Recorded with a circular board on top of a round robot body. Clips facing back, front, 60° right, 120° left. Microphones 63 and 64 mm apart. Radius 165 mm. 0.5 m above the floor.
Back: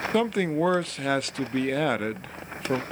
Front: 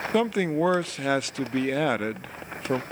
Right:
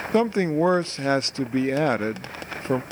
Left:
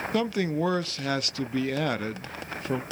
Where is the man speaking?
85° right, 0.7 m.